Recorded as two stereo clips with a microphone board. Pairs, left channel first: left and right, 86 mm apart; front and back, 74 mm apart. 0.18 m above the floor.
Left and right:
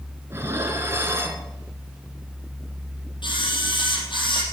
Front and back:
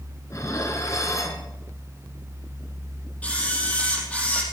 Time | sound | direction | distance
0.3 | dishes clattering | 35° right | 1.6 m
3.2 | a camera shutter | 70° left | 4 m